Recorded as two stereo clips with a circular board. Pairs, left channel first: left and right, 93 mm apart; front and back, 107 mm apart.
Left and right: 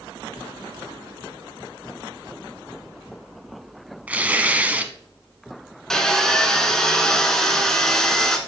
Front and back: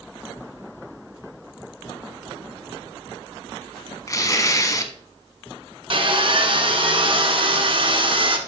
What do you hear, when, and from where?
4.1 s tearing paper: 25° right, 0.8 m
5.9 s sawing: 175° left, 1.3 m